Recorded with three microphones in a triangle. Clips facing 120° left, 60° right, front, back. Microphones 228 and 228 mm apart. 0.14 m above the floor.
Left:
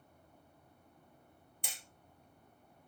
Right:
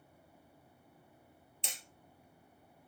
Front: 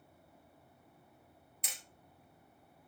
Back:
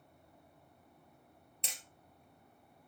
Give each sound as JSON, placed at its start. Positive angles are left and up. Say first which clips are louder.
{"t": 1.6, "sound": "hammering", "louder": "right 2 dB, back 2 dB", "azimuth_deg": -120, "distance_m": 2.5}